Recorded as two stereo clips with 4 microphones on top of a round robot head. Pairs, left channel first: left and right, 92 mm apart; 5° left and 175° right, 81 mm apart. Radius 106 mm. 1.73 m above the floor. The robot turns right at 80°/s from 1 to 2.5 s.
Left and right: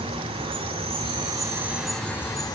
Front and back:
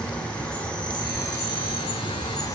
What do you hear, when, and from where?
0.0 s an insect: 75° right, 3.5 m; by 2.6 s 45° left, 3.5 m